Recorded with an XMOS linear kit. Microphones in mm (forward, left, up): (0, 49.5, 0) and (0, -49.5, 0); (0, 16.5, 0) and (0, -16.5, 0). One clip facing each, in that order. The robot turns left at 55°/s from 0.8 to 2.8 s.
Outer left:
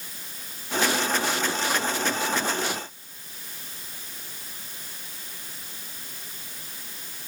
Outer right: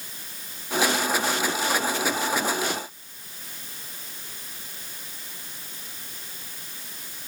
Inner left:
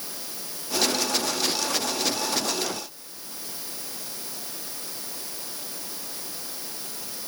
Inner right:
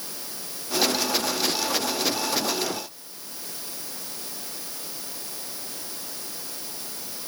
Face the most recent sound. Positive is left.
No sound to turn to.